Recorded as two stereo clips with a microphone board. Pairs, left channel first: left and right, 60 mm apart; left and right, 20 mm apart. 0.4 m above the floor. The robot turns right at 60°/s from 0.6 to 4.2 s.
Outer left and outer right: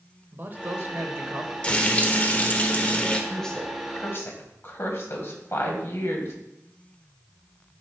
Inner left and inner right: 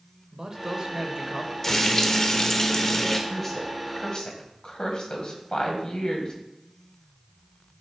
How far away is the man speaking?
About 1.3 m.